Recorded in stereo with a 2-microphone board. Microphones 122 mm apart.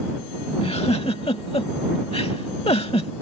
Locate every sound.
0.6 s a giggle: 55° left (ahead or behind)